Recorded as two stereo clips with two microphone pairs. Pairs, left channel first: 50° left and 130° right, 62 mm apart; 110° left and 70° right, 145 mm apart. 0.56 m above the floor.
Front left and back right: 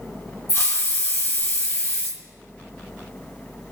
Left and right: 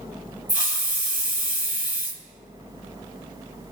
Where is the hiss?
90° left, 1.1 m.